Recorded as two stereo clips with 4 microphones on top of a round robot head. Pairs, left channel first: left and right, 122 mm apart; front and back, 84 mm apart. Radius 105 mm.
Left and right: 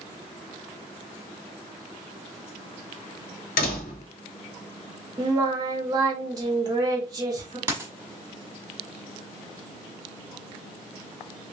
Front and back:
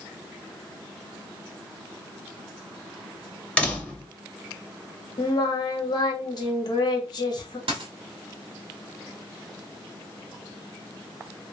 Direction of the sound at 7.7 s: 155° right.